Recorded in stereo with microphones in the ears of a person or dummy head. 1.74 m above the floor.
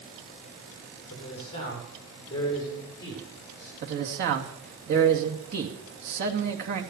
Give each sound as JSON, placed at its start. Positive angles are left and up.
{"t": 1.1, "sound": "a man speaking", "side_deg": 35, "distance_m": 6.5}
{"t": 3.8, "sound": "a man speaking", "side_deg": -55, "distance_m": 2.5}